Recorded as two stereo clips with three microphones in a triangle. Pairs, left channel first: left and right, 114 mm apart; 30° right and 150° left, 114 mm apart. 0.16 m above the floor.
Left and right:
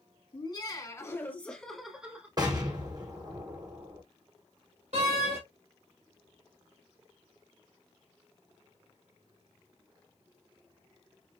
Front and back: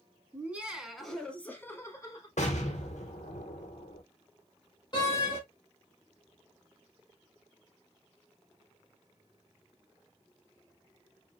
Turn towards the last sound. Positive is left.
turn(degrees=-80)